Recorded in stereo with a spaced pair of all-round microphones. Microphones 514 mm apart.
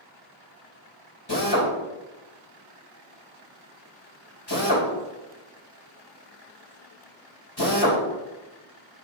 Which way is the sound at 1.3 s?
45° left (ahead or behind).